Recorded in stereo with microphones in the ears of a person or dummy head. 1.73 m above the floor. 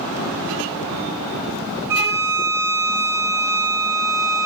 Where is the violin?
20° right (ahead or behind), 0.7 m.